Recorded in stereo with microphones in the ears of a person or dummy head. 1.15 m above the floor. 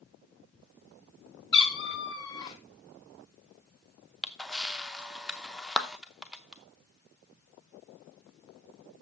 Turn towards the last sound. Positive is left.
turn(degrees=0)  # may be behind; listen again after turning